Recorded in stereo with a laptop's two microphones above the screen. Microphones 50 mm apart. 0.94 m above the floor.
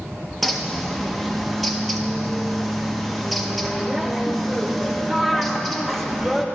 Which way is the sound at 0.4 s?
5° left (ahead or behind).